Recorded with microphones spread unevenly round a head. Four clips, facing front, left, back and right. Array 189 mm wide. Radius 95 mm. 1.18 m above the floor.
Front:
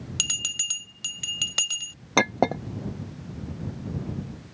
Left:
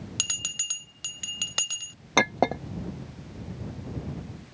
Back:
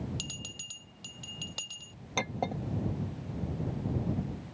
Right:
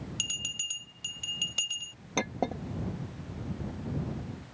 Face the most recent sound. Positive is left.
turn(degrees=20)